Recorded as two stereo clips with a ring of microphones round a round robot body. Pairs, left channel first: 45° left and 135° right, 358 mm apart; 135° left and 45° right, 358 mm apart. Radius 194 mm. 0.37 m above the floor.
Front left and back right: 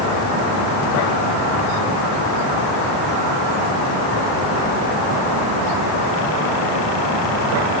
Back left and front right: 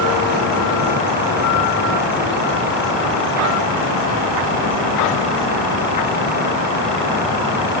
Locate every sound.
Only background noise.